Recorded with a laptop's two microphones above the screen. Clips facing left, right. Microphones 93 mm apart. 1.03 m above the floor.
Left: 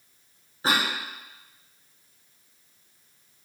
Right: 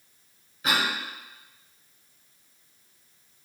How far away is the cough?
About 0.6 m.